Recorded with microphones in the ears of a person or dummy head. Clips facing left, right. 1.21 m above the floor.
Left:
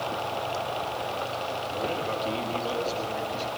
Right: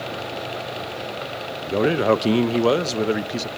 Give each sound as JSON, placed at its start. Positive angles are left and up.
{"t": 1.6, "sound": "a man speaking", "side_deg": -85, "distance_m": 0.9}